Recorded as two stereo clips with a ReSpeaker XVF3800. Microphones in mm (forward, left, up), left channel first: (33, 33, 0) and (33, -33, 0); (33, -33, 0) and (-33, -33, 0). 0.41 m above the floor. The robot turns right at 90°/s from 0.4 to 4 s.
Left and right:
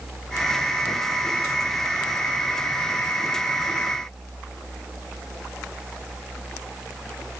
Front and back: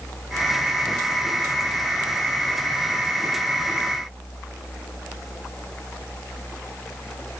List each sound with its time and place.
Only background noise.